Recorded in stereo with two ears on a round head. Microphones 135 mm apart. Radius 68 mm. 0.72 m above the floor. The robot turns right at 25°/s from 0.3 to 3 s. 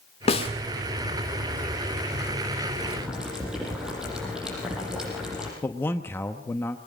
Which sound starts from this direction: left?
A snare drum, at 0.3 s.